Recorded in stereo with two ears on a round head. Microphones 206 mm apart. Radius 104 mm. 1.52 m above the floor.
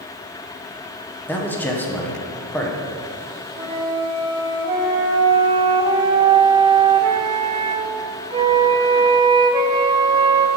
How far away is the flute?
About 0.7 m.